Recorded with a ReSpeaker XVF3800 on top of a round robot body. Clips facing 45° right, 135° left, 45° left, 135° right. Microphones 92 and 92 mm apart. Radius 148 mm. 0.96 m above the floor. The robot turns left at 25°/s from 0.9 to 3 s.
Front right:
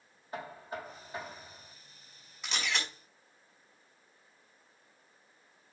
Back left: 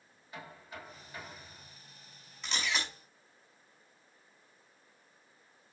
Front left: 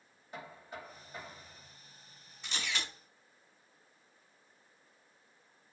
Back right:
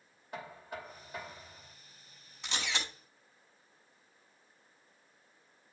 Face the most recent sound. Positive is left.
turn(degrees=-145)